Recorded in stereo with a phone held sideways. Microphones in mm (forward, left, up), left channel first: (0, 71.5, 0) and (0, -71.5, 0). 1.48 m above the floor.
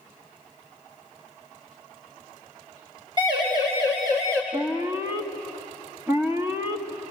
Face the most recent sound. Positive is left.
turn(degrees=-20)  # may be behind; listen again after turning